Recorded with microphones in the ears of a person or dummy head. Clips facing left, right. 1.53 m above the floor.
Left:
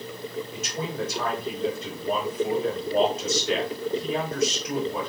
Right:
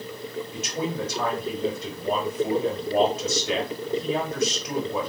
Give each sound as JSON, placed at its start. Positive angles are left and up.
{"t": 0.5, "sound": "a man speaking", "side_deg": -70, "distance_m": 2.0}